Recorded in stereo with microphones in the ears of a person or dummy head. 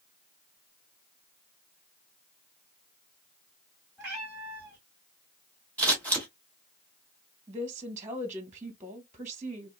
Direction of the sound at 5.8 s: 5° left (ahead or behind).